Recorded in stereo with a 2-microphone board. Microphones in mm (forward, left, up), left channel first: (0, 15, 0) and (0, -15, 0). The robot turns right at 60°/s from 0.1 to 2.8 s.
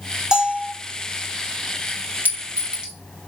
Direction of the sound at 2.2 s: 60° right (ahead or behind).